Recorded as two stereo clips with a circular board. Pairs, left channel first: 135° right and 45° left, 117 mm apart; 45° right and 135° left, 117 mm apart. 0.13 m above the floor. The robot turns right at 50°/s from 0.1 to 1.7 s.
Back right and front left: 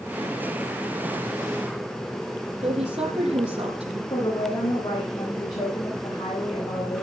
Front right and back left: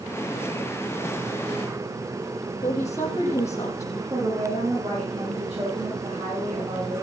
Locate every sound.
2.6 s a woman speaking: 20° left, 5.5 m
4.1 s a woman speaking: 175° left, 9.5 m